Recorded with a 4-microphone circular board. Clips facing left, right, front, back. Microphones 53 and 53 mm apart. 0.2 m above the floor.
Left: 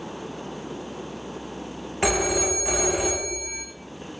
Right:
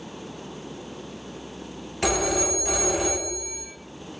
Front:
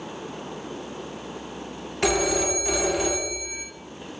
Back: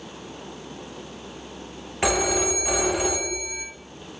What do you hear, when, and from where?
2.0 s a phone ringing: 125° left, 0.8 m